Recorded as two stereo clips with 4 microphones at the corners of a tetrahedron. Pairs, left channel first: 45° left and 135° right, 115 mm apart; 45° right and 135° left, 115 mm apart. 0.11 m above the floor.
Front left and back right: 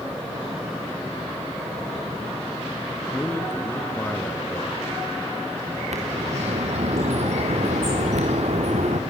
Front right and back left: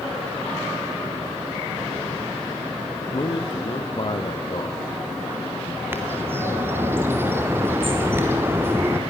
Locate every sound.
3.1 s a man speaking: 20° right, 2.5 m
5.9 s a bird: 155° right, 3 m